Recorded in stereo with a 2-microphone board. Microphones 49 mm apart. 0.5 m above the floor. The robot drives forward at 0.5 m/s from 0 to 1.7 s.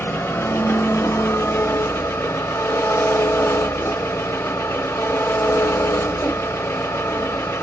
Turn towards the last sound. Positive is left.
turn(degrees=70)  # may be behind; listen again after turning